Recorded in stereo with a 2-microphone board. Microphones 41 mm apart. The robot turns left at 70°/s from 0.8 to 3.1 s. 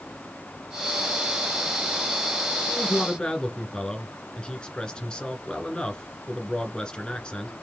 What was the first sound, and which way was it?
A man speaking, straight behind.